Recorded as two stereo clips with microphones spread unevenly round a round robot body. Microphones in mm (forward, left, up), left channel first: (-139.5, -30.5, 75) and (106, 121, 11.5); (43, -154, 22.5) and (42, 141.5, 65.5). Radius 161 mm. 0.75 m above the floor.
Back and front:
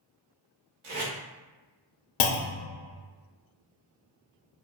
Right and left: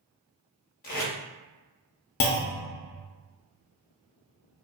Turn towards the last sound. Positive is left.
turn(degrees=-145)